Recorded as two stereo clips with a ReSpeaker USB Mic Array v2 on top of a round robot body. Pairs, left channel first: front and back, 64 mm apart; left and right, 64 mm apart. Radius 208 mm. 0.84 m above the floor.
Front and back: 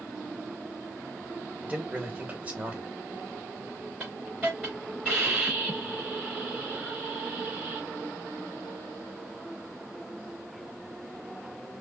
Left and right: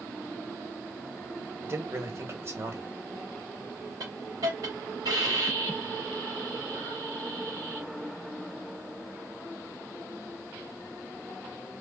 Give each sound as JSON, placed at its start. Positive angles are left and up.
{"t": 1.6, "sound": "a man speaking", "azimuth_deg": -120, "distance_m": 1.3}
{"t": 4.0, "sound": "a hiss", "azimuth_deg": -105, "distance_m": 0.7}